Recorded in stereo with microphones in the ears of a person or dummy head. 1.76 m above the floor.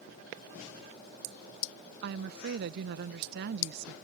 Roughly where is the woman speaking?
Right.